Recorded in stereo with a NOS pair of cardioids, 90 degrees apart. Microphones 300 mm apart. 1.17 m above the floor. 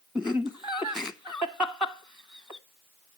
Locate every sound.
0.1 s laughter: straight ahead, 0.8 m